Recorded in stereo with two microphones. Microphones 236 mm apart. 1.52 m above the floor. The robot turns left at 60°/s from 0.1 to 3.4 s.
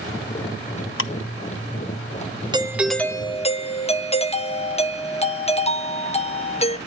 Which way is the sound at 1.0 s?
55° left (ahead or behind).